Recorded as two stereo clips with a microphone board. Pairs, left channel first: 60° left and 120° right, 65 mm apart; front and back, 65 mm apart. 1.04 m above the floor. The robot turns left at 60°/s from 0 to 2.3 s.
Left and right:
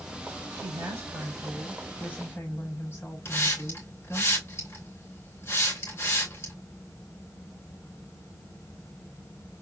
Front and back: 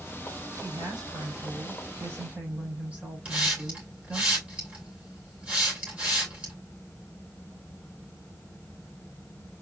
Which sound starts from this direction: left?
A hiss, at 3.2 s.